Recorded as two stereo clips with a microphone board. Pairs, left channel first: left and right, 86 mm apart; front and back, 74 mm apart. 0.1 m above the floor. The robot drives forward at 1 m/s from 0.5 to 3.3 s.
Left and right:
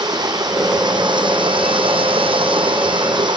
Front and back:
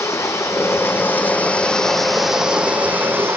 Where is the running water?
50° right, 2.5 m; by 3.4 s 120° right, 2.5 m.